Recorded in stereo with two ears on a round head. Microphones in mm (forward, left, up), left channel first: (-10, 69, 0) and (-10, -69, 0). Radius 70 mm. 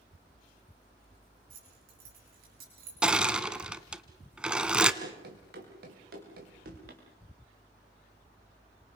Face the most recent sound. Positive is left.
turn(degrees=-75)  # may be behind; listen again after turning